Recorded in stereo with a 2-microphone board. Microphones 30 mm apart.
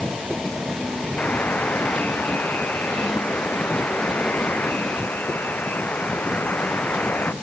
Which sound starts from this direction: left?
A buzzer, at 1.2 s.